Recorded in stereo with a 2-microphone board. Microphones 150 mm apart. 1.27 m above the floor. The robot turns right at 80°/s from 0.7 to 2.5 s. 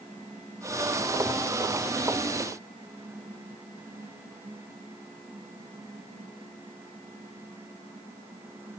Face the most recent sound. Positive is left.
No sound to turn to.